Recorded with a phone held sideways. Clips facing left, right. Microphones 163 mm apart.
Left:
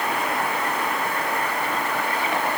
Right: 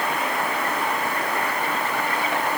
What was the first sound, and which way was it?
Only background noise.